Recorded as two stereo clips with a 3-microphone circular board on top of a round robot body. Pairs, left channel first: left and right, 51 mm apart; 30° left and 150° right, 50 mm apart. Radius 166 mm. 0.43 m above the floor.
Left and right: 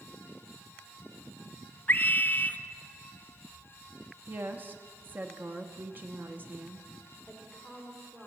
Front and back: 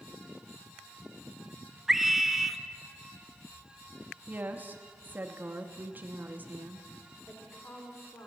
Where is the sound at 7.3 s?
5° right, 1.9 m.